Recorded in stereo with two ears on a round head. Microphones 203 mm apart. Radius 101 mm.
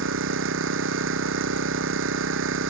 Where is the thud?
No thud in this recording.